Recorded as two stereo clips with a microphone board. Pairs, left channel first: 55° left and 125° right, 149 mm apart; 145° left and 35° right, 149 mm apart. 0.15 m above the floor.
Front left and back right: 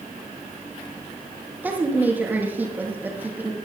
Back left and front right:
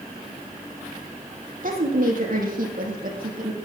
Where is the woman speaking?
45° right, 4.5 m.